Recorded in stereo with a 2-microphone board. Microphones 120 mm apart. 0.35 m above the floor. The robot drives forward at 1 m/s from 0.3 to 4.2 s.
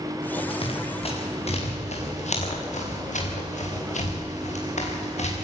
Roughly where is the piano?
I don't hear a piano.